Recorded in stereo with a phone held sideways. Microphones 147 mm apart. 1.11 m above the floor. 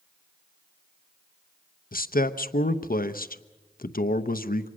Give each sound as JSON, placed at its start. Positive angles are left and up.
{"t": 1.9, "sound": "a man speaking", "side_deg": 80, "distance_m": 0.8}